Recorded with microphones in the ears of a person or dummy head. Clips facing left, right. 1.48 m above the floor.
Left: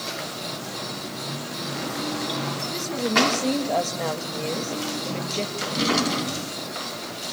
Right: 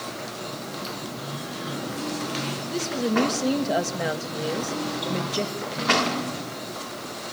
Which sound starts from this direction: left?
A drawer, at 5.6 s.